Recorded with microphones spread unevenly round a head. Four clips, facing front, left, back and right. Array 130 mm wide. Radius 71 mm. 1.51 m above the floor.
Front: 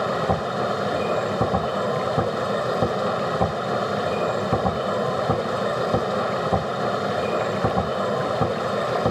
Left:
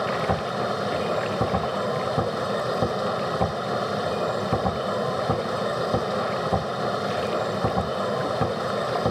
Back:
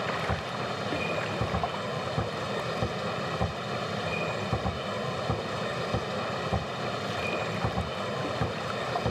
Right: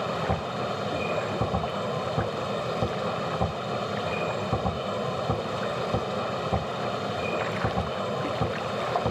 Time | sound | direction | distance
0.0 | a machine running | 25° left | ?